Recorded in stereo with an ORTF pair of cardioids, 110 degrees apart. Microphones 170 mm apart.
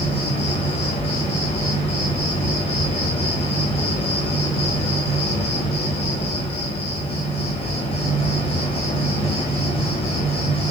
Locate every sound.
0.0 s an insect: 30° left, 0.9 m